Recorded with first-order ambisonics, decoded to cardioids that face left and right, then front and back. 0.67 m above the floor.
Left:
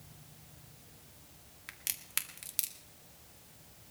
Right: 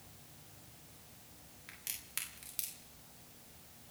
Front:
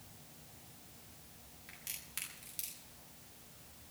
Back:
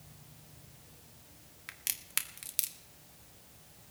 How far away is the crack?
About 1.7 m.